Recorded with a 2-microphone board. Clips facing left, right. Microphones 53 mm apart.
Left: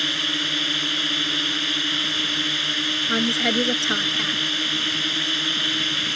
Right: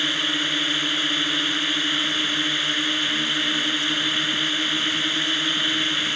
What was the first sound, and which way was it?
A drone, 10° right (ahead or behind).